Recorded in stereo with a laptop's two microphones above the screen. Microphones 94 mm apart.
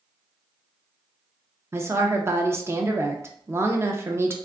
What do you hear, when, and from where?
1.7 s a woman speaking: 25° right (ahead or behind), 0.5 m